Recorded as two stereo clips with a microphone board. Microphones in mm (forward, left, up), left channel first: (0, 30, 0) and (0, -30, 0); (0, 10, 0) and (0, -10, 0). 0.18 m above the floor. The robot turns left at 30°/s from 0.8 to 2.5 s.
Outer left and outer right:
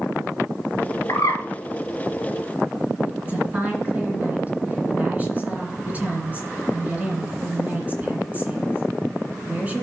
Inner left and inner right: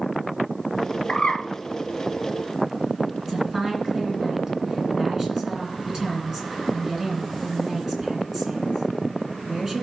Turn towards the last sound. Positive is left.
turn(degrees=-25)  # may be behind; listen again after turning